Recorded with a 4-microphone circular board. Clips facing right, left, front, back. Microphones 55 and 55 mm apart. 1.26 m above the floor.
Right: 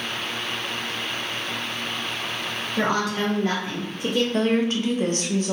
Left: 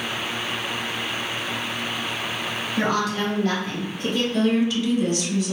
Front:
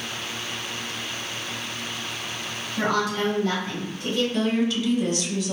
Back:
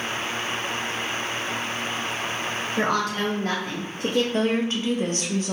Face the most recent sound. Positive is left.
turn(degrees=-135)